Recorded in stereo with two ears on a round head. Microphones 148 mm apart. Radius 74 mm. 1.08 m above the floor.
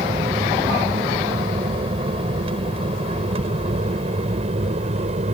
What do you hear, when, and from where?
0.0 s an aircraft: 35° right (ahead or behind); by 5.3 s 40° right (ahead or behind)